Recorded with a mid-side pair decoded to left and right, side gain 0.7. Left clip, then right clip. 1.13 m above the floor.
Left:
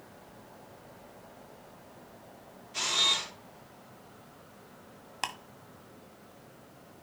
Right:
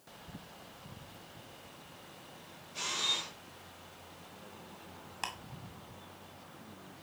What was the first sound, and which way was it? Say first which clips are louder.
A camera shutter: left 6 dB; 65° left.